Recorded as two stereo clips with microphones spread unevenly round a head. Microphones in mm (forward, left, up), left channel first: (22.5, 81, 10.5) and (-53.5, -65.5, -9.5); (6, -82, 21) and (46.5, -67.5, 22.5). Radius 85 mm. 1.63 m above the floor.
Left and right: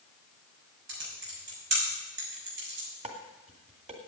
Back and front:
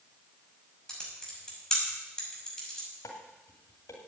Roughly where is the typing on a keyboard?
Right.